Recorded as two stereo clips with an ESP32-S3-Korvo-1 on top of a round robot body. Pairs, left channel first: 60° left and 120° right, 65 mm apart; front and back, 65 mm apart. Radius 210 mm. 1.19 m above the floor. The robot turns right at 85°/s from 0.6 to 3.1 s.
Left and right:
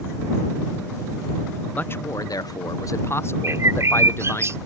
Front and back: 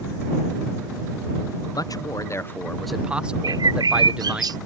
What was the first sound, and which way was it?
A man speaking, 10° right.